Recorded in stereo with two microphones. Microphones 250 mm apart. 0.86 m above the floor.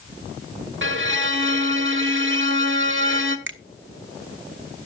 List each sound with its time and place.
0.8 s a violin: 55° right (ahead or behind), 1.1 m
3.5 s a finger snap: 55° right (ahead or behind), 0.7 m